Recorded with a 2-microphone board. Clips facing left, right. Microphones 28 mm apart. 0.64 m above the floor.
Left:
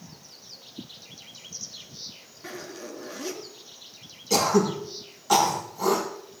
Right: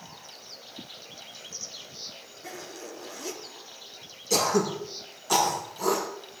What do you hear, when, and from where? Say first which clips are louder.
2.4 s a zipper: left 3 dB; 25° left (ahead or behind), 3.5 m
4.3 s throat clearing: left 3 dB; 15° left (ahead or behind), 6.5 m